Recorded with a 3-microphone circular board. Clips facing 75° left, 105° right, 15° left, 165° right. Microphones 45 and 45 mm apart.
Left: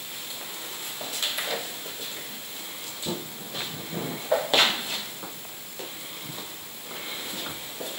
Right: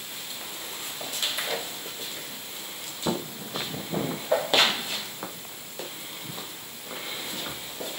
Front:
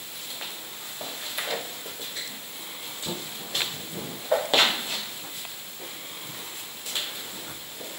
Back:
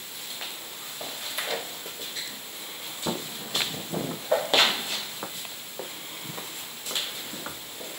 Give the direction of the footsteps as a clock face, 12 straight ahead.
4 o'clock.